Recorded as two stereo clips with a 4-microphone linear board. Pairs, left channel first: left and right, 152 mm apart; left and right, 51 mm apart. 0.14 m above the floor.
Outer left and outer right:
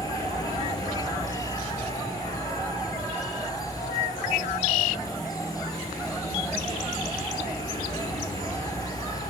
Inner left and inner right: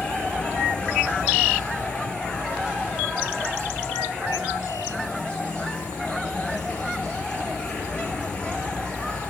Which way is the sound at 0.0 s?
25° left (ahead or behind).